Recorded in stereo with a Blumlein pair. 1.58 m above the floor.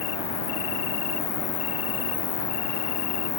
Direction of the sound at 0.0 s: 45° left.